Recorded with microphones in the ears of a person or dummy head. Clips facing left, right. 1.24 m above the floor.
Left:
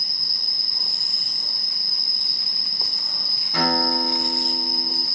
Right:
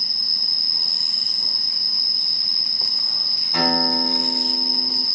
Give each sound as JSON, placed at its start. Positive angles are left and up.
{"t": 0.0, "sound": "an insect", "side_deg": -30, "distance_m": 1.5}
{"t": 3.5, "sound": "a guitar", "side_deg": -70, "distance_m": 2.0}